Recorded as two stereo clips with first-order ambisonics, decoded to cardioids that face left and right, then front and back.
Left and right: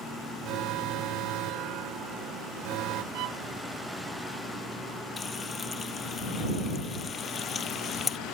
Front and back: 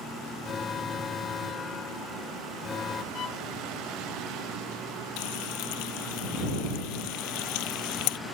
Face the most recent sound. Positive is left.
turn(degrees=15)